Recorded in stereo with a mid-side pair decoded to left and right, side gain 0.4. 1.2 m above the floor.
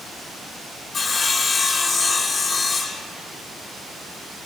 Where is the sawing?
45° left, 6 m.